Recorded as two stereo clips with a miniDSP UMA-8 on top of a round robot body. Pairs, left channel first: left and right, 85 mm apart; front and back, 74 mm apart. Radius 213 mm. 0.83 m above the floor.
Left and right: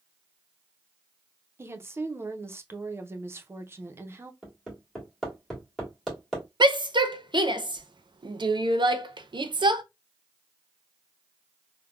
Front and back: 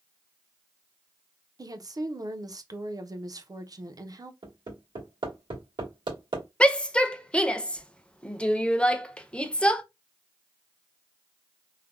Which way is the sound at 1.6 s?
150° right.